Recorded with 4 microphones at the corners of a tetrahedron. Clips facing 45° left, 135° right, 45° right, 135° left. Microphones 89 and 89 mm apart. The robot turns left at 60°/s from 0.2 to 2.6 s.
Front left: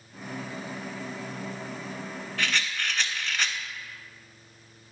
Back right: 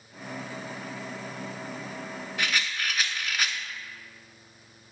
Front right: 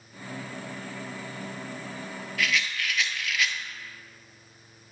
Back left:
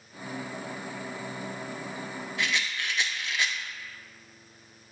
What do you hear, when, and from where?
2.4 s a rattle: 165° left, 0.6 m; by 3.6 s 150° left, 0.6 m